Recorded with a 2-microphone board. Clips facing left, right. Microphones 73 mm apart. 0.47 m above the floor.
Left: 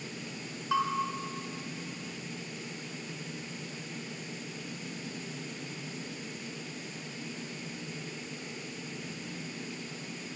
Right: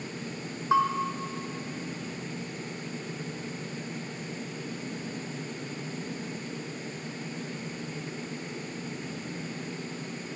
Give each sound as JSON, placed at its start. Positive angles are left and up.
{"t": 0.7, "sound": "a bell", "side_deg": -35, "distance_m": 1.5}